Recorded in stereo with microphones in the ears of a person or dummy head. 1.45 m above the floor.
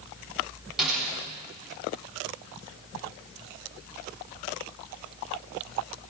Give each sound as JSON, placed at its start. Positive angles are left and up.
{"t": 0.8, "sound": "a snare drum", "side_deg": -5, "distance_m": 7.0}